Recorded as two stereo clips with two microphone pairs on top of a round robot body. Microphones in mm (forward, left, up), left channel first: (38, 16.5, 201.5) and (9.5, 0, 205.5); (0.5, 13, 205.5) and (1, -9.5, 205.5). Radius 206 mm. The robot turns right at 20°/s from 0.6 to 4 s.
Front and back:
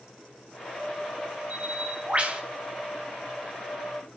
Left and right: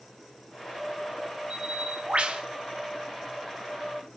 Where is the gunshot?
I don't hear a gunshot.